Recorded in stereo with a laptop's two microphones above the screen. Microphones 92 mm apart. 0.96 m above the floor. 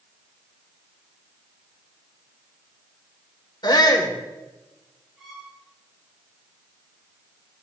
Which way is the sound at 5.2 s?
5° right (ahead or behind).